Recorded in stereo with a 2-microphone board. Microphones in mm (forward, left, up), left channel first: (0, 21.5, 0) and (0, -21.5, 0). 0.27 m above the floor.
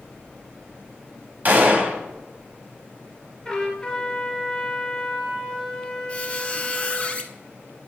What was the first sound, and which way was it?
A gunshot, 45° right (ahead or behind).